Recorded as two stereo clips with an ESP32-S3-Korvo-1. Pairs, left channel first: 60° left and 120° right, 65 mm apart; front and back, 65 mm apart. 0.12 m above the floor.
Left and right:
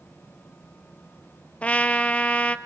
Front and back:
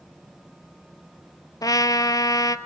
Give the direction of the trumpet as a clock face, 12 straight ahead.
12 o'clock.